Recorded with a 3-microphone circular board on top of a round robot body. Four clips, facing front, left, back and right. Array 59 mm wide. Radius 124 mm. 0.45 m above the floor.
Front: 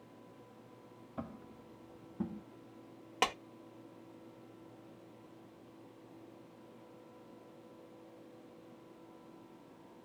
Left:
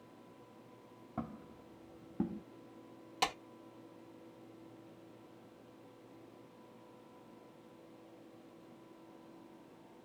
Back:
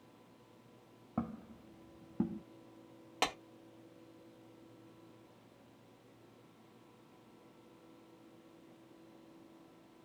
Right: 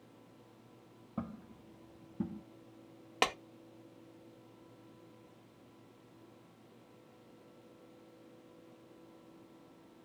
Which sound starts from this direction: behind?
Footsteps, at 1.2 s.